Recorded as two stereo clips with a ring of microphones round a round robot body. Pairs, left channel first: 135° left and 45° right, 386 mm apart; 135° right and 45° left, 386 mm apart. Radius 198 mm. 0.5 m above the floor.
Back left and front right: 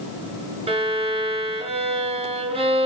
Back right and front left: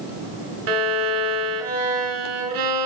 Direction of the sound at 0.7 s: 30° left.